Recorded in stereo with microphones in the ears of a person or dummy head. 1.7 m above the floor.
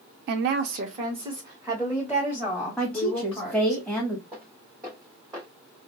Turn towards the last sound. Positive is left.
turn(degrees=-20)  # may be behind; listen again after turning